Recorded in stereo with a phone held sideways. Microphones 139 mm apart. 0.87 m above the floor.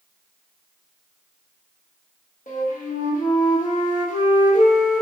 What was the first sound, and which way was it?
A flute, 65° left (ahead or behind).